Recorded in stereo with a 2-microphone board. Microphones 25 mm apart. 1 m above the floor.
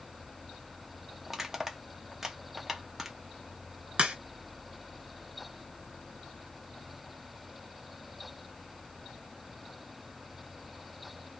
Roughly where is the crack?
Right.